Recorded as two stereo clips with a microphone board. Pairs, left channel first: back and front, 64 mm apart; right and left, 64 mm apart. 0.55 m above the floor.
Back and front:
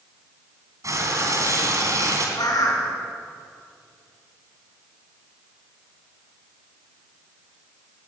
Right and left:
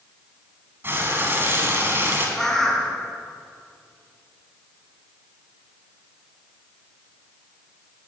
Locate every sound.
0.8 s frying: 35° left, 4 m
2.4 s a bird: 175° right, 5 m